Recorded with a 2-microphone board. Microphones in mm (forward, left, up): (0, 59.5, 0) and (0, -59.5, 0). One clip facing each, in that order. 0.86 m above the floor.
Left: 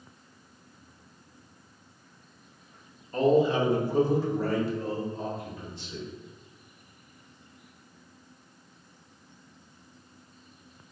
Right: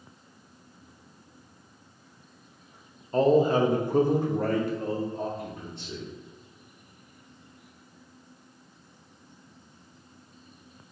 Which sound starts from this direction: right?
A man speaking, at 3.1 s.